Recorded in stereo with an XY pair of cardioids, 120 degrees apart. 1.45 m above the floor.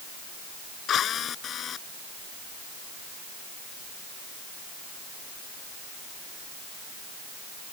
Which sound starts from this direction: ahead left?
A drill, at 0.9 s.